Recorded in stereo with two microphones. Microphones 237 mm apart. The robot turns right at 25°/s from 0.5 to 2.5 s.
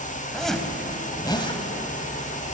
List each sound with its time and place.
0.3 s a zipper: centre (ahead or behind), 2.0 m; by 1.6 s 25° left (ahead or behind), 2.0 m